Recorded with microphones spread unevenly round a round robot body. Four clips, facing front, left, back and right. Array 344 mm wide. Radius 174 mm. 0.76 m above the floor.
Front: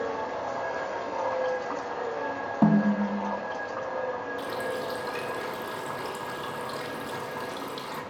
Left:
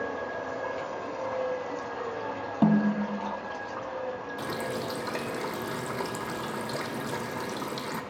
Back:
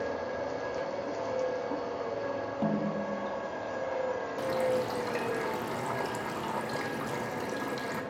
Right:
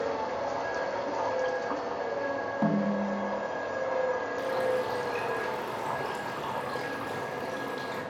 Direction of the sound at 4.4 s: 100° left.